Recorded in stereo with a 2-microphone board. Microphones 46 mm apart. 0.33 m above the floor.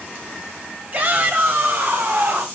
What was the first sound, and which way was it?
A shout, 40° right (ahead or behind).